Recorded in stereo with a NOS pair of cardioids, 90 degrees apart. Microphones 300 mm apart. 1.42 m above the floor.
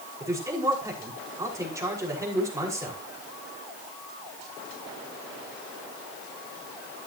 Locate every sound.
0.2 s a man speaking: 10° right, 5.5 m